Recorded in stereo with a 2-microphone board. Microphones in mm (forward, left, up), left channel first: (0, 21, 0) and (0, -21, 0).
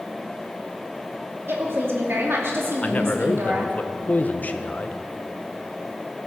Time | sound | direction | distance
1.5 | a woman speaking | 60° right (ahead or behind) | 2.5 m
2.8 | a man speaking | 35° left (ahead or behind) | 0.8 m